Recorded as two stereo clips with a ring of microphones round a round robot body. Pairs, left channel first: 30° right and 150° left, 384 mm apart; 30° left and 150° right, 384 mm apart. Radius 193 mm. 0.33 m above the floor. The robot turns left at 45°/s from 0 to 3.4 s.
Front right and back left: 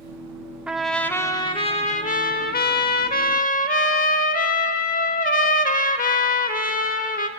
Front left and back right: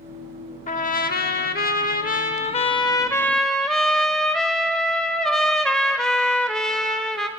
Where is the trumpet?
65° left, 0.8 m; by 7.3 s 55° right, 0.8 m.